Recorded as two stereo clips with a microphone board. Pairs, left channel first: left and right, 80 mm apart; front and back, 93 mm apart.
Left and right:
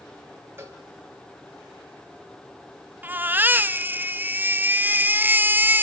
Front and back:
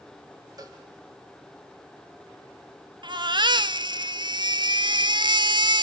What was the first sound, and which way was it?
A cowbell, 140° right.